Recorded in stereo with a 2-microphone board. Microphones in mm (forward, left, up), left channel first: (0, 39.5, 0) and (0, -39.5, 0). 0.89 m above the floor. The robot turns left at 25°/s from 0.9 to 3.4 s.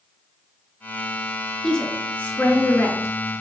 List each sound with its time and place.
1.6 s a woman speaking: 10° left (ahead or behind), 1.7 m; by 3.3 s 45° left (ahead or behind), 1.7 m